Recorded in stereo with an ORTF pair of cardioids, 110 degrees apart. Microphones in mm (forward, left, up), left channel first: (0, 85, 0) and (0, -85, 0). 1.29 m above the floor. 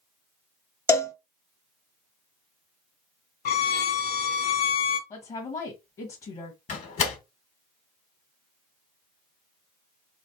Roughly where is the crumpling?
No crumpling in this recording.